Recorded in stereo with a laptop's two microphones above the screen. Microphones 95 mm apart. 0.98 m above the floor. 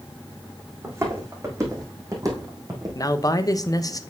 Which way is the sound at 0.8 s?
30° right (ahead or behind).